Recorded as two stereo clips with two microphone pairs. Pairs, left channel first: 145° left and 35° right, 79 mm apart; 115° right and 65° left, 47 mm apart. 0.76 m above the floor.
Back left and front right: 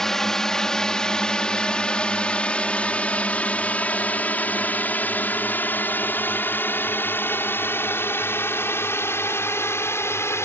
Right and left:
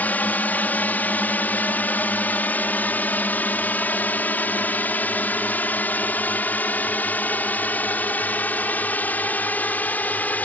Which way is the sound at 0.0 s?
130° right.